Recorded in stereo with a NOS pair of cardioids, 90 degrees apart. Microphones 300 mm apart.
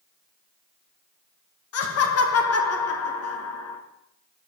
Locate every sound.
1.7 s laughter: 55° left, 1.1 m